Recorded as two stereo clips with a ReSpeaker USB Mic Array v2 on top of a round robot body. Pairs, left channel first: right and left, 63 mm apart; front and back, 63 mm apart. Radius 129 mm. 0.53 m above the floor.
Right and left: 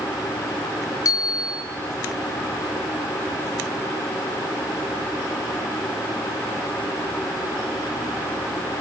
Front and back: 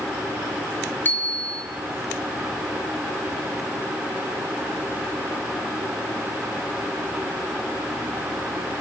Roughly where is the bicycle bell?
Ahead right.